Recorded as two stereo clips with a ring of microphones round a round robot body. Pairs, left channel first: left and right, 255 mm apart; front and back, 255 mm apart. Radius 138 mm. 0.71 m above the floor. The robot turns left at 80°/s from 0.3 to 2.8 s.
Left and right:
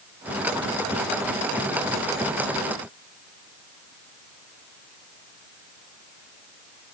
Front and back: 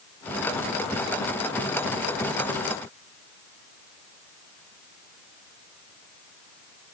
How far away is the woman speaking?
No woman speaking in this recording.